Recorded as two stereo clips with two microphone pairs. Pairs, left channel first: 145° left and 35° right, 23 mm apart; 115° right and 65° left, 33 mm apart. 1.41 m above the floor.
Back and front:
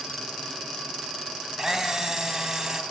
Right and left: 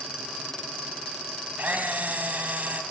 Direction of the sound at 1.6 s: 30° left.